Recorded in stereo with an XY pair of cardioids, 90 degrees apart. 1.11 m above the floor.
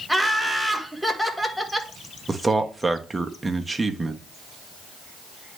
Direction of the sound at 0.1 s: Straight ahead.